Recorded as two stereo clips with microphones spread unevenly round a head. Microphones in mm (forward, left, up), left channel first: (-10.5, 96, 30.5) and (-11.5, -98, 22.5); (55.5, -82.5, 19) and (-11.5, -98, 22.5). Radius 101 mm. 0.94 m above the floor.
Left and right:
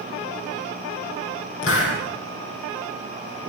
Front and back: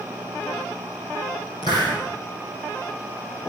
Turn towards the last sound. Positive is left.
turn(degrees=65)